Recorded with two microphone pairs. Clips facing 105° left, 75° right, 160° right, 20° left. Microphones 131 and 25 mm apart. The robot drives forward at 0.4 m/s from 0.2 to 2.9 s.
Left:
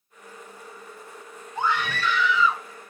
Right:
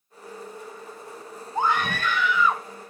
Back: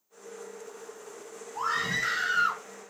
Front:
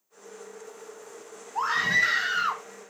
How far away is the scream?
About 1.4 m.